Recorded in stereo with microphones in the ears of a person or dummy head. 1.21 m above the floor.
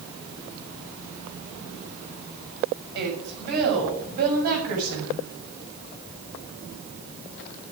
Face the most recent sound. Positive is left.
turn(degrees=-50)  # may be behind; listen again after turning